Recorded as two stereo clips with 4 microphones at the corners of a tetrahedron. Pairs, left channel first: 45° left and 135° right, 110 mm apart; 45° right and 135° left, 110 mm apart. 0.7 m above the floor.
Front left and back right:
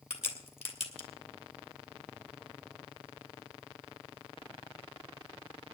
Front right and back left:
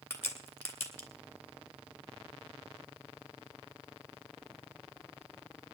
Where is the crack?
20° left, 2.5 m.